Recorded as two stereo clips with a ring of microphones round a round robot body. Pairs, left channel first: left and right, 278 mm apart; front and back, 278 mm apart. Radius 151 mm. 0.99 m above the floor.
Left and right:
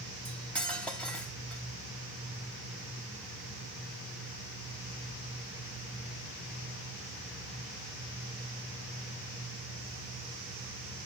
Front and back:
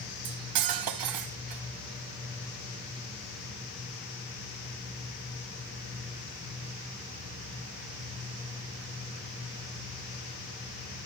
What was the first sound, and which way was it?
Cutlery clinking, 175° left.